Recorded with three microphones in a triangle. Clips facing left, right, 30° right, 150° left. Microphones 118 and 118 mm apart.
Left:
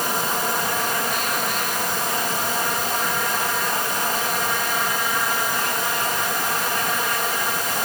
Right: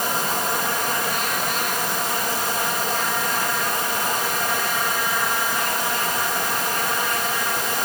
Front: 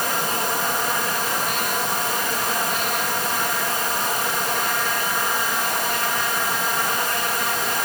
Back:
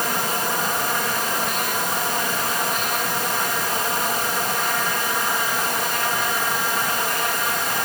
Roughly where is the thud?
I don't hear a thud.